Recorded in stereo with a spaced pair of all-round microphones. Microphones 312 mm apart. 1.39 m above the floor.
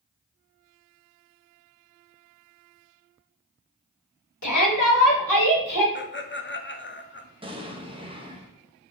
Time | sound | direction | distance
4.4 | a shout | 60° left (ahead or behind) | 1.4 m
6.0 | laughter | 35° left (ahead or behind) | 0.6 m
7.4 | an explosion | 15° right (ahead or behind) | 0.8 m